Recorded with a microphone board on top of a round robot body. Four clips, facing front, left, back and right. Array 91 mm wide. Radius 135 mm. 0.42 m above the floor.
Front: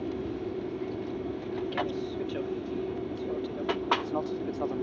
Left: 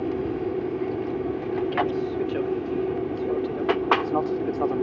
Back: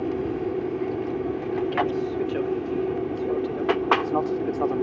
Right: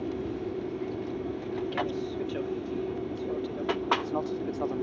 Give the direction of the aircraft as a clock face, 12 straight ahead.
7 o'clock.